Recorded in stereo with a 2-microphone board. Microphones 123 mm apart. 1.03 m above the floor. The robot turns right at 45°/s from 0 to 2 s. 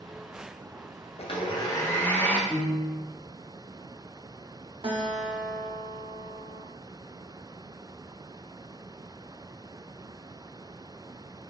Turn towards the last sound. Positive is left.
turn(degrees=-40)  # may be behind; listen again after turning